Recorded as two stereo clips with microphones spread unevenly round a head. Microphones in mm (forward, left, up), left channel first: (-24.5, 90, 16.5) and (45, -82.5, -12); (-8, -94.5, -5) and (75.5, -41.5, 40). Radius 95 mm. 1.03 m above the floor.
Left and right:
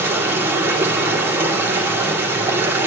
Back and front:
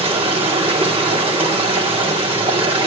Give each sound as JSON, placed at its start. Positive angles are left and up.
{"t": 0.0, "sound": "running water", "azimuth_deg": 10, "distance_m": 2.0}